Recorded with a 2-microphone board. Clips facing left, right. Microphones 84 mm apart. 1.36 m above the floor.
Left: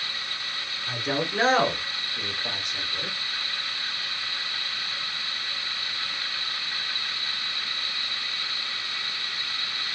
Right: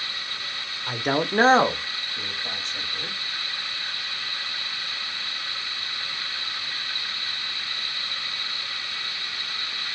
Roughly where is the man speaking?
Right.